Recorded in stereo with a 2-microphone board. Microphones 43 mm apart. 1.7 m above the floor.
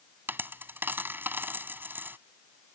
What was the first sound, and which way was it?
A dropped coin, 55° right (ahead or behind).